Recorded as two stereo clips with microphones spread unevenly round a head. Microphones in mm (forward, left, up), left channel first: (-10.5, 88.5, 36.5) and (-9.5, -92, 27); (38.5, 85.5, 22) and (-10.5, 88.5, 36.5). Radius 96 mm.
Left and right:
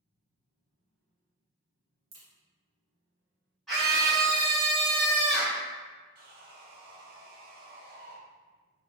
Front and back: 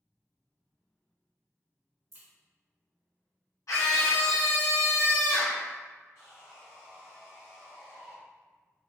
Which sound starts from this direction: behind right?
A crack, at 2.1 s.